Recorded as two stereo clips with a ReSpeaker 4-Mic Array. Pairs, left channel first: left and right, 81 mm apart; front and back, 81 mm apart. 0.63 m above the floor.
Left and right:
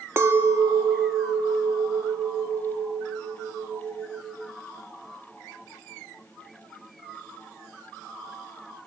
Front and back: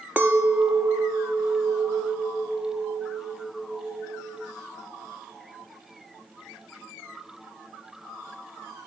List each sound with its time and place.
0.2 s a clink: 125° right, 0.6 m